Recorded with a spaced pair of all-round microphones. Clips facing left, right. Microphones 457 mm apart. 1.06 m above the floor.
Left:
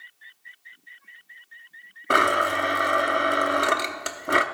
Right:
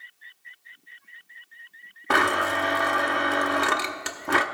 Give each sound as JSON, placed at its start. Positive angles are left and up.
{"t": 2.1, "sound": "a blender", "side_deg": -5, "distance_m": 0.6}